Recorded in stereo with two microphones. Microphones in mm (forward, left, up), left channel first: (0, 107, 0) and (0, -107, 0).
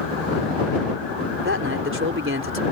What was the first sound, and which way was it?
A man speaking, 60° right (ahead or behind).